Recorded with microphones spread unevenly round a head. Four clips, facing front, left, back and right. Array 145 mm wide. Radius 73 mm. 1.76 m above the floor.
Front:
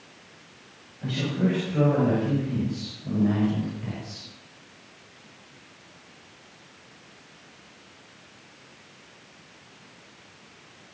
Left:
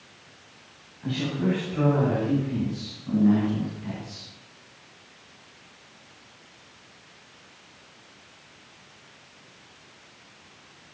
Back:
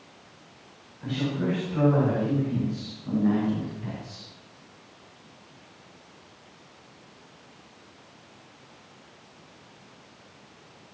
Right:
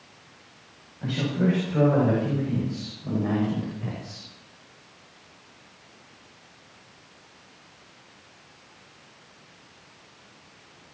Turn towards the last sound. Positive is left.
turn(degrees=-90)